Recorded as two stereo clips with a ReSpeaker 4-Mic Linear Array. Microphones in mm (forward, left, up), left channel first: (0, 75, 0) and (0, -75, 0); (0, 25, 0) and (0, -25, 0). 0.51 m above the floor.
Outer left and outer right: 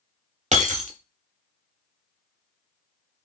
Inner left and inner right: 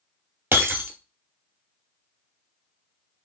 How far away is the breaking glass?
About 0.7 m.